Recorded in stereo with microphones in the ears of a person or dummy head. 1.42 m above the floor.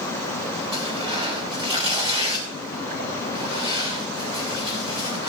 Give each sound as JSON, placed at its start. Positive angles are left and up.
{"t": 0.7, "sound": "tearing paper", "side_deg": -25, "distance_m": 3.0}